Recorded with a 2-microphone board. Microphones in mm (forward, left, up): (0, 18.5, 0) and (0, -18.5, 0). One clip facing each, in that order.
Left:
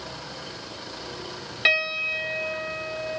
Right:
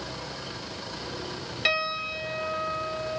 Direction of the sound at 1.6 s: 20° left (ahead or behind).